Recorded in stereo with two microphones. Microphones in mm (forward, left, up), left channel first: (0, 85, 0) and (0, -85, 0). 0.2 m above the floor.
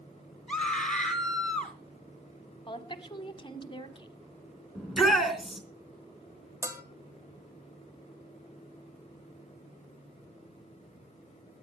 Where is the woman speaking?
30° left (ahead or behind), 1.2 m.